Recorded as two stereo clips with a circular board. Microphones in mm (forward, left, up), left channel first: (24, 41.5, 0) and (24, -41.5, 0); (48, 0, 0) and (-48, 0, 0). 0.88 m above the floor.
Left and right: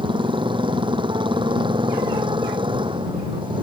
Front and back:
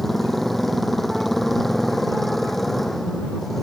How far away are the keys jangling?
No keys jangling in this recording.